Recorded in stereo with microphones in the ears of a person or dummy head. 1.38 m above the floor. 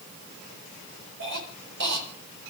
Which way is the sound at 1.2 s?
55° right (ahead or behind).